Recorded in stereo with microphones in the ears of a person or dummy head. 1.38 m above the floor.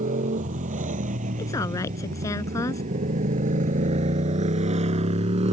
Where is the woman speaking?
20° left (ahead or behind).